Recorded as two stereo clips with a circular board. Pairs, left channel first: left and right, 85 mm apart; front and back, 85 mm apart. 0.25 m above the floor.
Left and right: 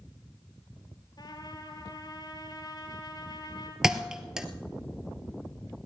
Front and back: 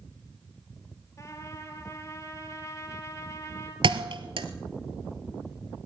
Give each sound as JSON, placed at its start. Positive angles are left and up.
{"t": 1.2, "sound": "a trumpet", "azimuth_deg": 55, "distance_m": 3.0}
{"t": 3.8, "sound": "a thud", "azimuth_deg": -175, "distance_m": 1.0}